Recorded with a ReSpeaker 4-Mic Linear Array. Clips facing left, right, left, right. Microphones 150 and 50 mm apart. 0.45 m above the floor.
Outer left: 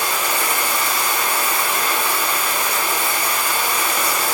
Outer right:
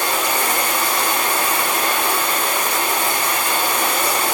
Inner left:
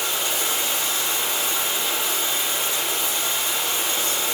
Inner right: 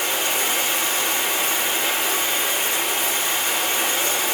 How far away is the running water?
About 5.5 m.